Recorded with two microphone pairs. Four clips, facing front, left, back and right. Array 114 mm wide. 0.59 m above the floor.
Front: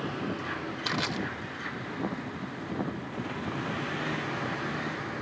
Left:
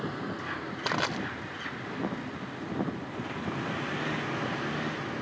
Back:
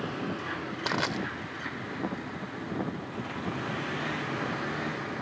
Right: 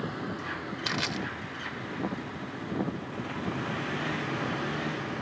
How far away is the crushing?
About 0.9 m.